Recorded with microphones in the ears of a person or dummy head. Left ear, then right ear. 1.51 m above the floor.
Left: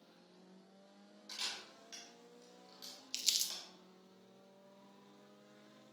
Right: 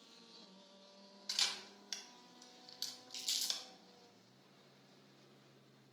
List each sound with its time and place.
1.3 s a camera shutter: 40° right (ahead or behind), 0.8 m
3.1 s crumpling: 60° left (ahead or behind), 0.7 m